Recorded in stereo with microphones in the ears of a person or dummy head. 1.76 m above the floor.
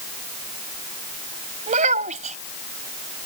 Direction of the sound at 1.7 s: 40° right (ahead or behind).